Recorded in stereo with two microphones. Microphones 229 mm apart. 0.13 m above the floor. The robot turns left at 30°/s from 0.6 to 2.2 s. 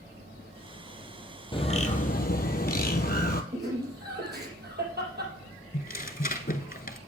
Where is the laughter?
45° right (ahead or behind), 3.5 m.